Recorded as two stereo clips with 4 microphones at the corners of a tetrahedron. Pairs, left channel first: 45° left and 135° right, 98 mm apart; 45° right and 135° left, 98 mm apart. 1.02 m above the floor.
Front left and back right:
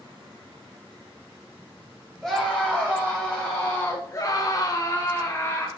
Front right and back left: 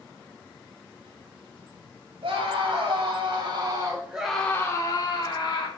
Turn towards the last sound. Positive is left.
turn(degrees=-20)